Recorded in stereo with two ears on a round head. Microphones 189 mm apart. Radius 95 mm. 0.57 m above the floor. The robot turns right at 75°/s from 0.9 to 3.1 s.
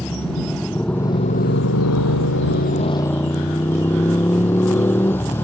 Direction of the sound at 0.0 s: 5° left.